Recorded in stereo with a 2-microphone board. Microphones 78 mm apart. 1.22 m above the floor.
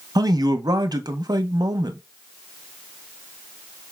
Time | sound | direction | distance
0.1 | a man speaking | 55° right (ahead or behind) | 0.5 m